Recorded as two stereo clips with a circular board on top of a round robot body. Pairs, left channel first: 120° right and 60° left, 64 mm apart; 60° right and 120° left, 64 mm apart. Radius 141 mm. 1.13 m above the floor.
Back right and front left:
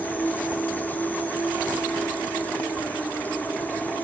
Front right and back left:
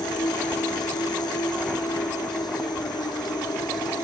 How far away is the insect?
About 2 m.